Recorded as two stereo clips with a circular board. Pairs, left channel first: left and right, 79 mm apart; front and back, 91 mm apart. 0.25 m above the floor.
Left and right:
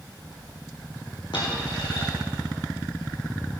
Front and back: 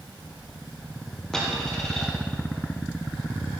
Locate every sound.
1.3 s a dropped coin: 85° left, 2.5 m